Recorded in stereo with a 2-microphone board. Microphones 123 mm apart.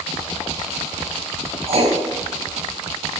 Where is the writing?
60° right (ahead or behind), 2.5 m.